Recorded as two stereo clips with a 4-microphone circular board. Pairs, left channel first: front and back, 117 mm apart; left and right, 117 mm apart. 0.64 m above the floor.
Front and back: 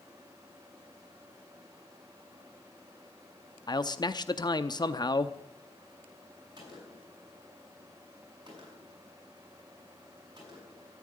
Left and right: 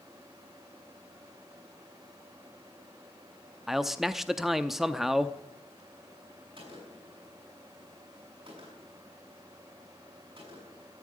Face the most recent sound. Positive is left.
turn(degrees=-130)